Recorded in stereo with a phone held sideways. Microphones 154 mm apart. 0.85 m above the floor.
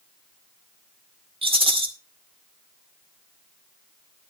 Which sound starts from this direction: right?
A rattle, at 1.4 s.